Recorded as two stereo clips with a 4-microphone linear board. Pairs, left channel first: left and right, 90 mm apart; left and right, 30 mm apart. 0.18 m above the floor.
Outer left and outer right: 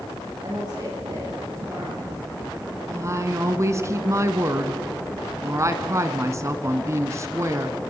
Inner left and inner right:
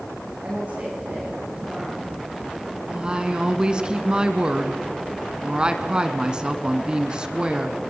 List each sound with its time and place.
0.4 s a woman speaking: 50° right (ahead or behind), 10 m
2.9 s a woman speaking: 35° right (ahead or behind), 1.5 m